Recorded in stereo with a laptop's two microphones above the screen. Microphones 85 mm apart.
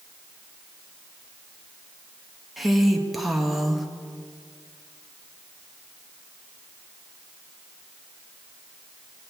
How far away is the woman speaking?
About 1.0 m.